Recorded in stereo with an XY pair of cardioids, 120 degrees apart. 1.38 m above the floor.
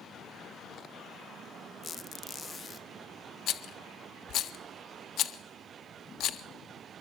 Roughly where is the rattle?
Ahead left.